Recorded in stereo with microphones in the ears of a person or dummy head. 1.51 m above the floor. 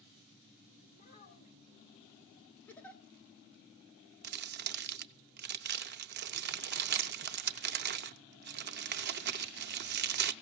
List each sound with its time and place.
0.9 s a child speaking: 50° left (ahead or behind), 4 m
2.7 s a giggle: 15° left (ahead or behind), 1.6 m
4.2 s crumpling: 55° right (ahead or behind), 0.6 m